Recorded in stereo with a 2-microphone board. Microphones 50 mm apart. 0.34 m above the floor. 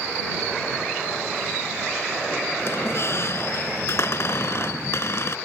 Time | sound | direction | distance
2.6 | a squeak | 60° left (ahead or behind) | ?